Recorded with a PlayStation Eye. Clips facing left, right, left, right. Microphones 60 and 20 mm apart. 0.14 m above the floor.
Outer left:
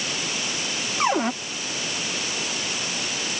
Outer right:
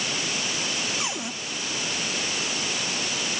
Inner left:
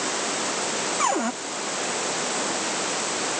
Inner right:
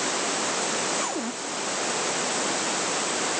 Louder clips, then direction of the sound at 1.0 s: Outer left 10 dB, inner left 6 dB; 45° left (ahead or behind).